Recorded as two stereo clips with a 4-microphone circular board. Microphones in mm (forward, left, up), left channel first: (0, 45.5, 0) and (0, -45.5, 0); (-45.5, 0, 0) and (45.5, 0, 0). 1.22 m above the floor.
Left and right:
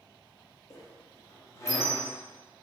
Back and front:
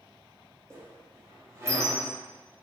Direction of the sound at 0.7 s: 45° left.